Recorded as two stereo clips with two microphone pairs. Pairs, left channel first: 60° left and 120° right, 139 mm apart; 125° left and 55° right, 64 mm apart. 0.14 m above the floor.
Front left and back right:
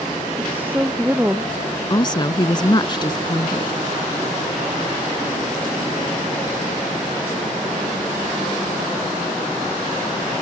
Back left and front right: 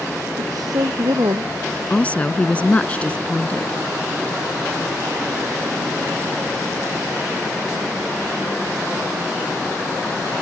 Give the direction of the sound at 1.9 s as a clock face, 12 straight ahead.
9 o'clock.